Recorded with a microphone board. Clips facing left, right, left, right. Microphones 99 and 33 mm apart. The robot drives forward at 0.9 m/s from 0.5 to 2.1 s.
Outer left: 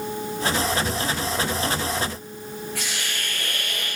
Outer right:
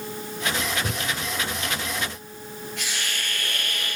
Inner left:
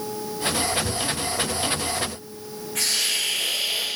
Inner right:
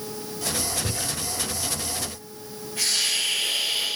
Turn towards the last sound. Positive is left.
turn(degrees=85)